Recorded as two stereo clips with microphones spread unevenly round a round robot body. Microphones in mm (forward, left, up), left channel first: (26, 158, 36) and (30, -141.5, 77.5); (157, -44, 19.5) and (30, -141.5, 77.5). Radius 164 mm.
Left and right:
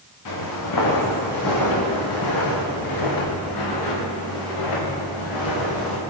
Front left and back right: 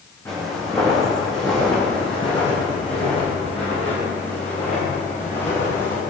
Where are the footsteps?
120° left, 6.5 m; by 6.0 s 100° left, 8 m.